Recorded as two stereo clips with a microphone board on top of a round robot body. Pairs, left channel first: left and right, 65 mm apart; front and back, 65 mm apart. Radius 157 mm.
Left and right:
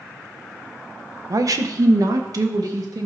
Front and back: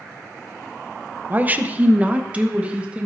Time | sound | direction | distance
1.3 | a woman speaking | 115° right | 0.8 m